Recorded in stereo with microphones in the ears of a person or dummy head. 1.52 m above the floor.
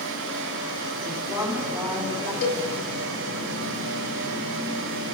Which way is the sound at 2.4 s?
65° left (ahead or behind).